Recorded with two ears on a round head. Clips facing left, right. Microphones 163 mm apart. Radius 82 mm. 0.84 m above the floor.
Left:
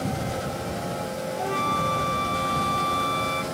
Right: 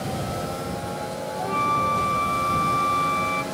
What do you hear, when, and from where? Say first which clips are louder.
1.4 s a flute: right 2 dB; 15° left (ahead or behind)